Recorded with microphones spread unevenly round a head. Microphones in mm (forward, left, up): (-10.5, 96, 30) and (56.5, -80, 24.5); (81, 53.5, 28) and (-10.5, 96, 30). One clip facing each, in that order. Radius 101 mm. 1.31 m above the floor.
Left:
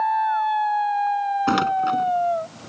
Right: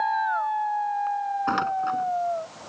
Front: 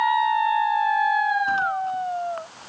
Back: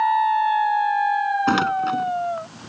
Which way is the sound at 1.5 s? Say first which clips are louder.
Left 6 dB, back 4 dB; 165° left.